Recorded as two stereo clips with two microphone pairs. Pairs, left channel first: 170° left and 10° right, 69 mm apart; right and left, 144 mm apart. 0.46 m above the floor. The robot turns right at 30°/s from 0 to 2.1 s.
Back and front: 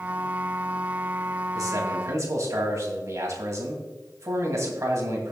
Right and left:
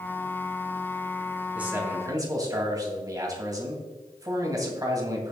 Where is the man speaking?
10° left, 2.5 m; by 5.3 s 25° left, 2.5 m.